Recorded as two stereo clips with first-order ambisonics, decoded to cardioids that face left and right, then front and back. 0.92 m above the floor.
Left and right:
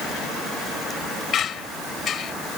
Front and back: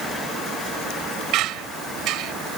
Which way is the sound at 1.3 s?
145° left.